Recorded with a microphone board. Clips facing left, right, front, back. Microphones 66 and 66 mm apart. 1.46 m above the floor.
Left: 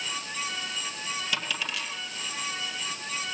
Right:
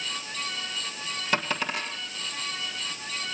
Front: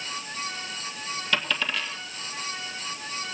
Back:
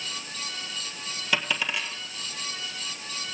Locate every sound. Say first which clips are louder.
1.3 s a dropped coin: right 8 dB, even; 105° right, 1.9 m